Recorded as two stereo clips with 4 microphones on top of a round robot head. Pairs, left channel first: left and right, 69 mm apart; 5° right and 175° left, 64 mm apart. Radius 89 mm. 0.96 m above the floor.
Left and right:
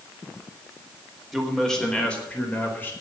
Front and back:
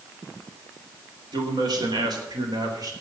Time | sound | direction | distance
1.3 | a man speaking | straight behind | 3.5 m